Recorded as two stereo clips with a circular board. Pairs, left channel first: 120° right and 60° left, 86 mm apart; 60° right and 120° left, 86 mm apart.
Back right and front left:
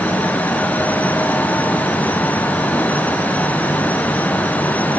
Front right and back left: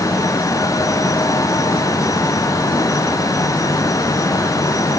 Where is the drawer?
I don't hear a drawer.